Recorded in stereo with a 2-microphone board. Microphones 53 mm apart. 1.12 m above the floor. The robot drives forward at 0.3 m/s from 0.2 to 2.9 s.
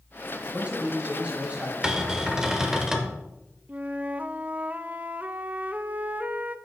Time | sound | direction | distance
0.5 | a man speaking | 25° right (ahead or behind) | 5 m
1.8 | a cupboard door | 15° right (ahead or behind) | 1.3 m
3.7 | a flute | 30° right (ahead or behind) | 0.5 m